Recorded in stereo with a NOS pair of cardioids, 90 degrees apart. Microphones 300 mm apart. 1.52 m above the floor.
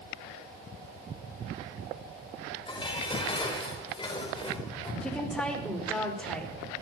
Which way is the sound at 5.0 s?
5° left.